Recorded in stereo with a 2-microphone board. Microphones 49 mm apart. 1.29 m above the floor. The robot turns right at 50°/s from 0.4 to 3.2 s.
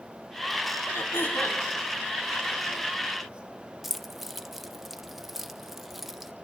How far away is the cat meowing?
I don't hear a cat meowing.